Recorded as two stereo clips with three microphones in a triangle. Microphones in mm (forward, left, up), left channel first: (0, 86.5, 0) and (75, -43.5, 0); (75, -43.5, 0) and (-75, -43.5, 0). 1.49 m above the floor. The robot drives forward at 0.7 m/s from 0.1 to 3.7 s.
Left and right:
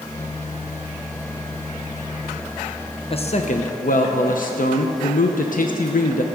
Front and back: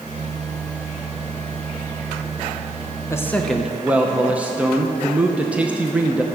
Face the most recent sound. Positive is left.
turn(degrees=100)